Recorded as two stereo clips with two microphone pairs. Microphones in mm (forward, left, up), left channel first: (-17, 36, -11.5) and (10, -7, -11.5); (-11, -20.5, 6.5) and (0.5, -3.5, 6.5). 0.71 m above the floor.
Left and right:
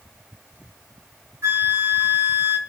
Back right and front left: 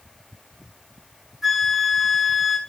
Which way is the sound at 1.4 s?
25° right.